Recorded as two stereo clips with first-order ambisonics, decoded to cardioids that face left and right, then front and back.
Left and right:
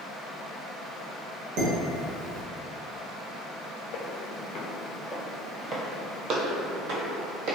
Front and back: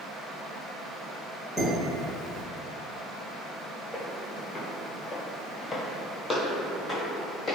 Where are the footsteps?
85° left, 0.8 m; by 7.5 s 80° right, 1.4 m.